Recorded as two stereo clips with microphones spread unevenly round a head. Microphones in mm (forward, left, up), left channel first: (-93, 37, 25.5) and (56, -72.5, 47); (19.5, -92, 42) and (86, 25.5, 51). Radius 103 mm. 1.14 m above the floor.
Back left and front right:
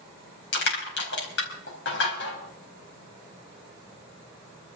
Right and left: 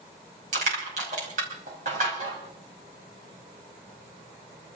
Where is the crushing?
110° left, 5 m.